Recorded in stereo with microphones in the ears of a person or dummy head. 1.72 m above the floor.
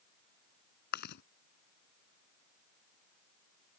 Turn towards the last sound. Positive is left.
turn(degrees=55)  # may be behind; listen again after turning